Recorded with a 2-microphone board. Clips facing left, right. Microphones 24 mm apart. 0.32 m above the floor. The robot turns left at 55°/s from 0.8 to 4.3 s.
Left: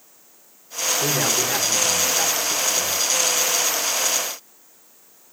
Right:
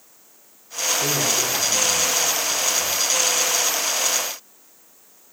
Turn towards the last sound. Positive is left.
turn(degrees=-20)